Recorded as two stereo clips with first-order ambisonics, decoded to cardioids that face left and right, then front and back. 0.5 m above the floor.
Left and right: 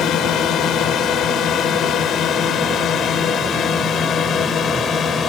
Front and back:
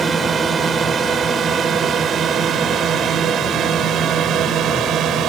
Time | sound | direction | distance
0.0 | a drone | 120° left | ?